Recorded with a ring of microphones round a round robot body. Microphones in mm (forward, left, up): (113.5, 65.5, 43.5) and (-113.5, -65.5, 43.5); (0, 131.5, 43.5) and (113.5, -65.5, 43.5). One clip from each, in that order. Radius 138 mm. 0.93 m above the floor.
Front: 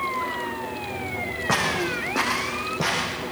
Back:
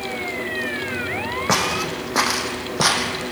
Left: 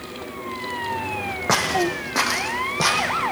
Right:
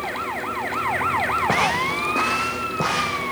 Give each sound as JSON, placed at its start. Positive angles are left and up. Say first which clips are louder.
{"t": 1.5, "sound": "footsteps", "louder": "back 2 dB, right 1 dB", "azimuth_deg": 145, "distance_m": 3.0}